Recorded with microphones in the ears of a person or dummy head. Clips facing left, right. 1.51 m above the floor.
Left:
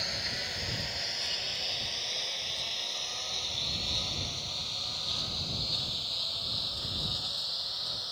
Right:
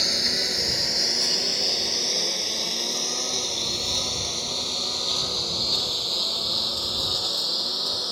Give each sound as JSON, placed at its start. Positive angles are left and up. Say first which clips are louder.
{"t": 0.0, "sound": "a lawn mower", "louder": "right 10 dB", "side_deg": -55}